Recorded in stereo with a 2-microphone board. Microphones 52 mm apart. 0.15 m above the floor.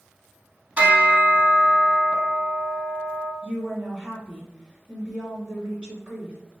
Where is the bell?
30° right (ahead or behind), 0.8 m.